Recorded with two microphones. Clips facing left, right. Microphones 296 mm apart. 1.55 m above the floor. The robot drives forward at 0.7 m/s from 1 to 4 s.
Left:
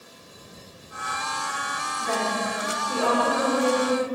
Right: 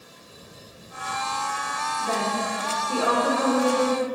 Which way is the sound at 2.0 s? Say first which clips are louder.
Even; 10° right (ahead or behind).